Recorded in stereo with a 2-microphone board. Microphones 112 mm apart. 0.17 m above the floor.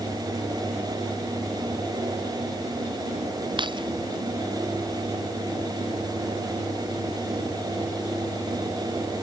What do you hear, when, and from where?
3.6 s keys jangling: 45° right (ahead or behind)